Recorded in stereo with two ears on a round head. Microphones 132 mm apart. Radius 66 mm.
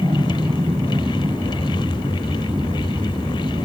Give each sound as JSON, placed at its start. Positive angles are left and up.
{"t": 0.0, "sound": "an aircraft", "side_deg": -15}